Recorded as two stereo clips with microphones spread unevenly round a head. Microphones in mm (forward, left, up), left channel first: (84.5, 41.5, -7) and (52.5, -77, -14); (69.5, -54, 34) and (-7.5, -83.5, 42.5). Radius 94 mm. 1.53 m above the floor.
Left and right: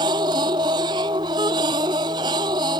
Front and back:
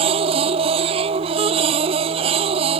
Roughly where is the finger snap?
No finger snap in this recording.